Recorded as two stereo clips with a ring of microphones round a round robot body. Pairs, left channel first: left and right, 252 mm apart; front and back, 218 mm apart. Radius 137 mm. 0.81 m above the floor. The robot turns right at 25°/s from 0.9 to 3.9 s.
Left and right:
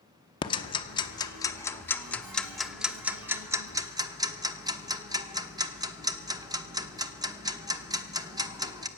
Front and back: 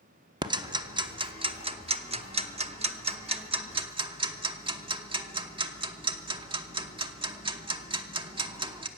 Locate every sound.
0.4 s ticking: 135° left, 0.9 m; by 8.9 s 150° right, 0.9 m